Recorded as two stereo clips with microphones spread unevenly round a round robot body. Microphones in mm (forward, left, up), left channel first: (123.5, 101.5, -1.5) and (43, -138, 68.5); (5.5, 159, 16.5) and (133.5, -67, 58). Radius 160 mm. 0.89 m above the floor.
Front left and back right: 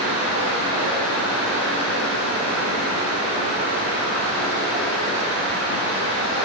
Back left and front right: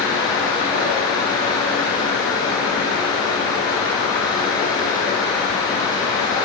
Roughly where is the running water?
Ahead left.